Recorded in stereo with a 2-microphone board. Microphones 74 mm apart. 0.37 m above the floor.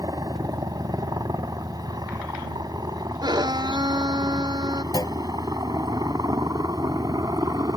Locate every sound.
0.0 s a helicopter: 60° right (ahead or behind)
3.2 s a violin: 75° right (ahead or behind)
4.9 s a clunk: 60° left (ahead or behind)